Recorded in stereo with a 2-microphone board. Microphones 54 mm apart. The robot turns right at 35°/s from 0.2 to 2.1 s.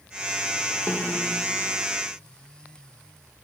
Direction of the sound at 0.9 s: 35° left (ahead or behind).